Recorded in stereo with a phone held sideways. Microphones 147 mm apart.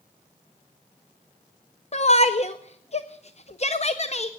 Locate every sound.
1.9 s a shout: 45° left (ahead or behind), 0.6 m